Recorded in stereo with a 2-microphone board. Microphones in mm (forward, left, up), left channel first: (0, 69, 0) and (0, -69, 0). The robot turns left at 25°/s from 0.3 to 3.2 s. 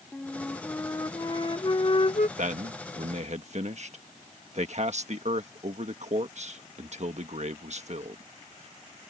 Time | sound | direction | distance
0.1 | a flute | 170° left | ?
2.4 | a man speaking | 60° right (ahead or behind) | ?